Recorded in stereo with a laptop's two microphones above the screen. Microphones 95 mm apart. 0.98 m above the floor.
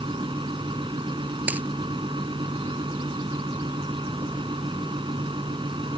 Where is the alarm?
I don't hear an alarm.